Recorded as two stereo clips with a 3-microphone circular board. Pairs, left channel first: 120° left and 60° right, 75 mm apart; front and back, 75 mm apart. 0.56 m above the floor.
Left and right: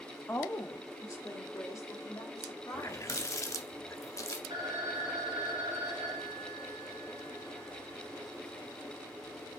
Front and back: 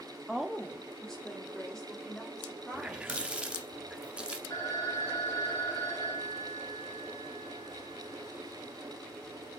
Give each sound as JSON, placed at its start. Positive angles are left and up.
{"t": 0.3, "sound": "a woman speaking", "azimuth_deg": 100, "distance_m": 0.9}
{"t": 2.7, "sound": "a running tap", "azimuth_deg": 115, "distance_m": 0.6}
{"t": 4.5, "sound": "a phone ringing", "azimuth_deg": -40, "distance_m": 2.5}